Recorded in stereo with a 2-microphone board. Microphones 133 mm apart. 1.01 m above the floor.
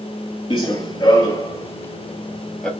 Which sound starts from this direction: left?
Running footsteps, at 0.5 s.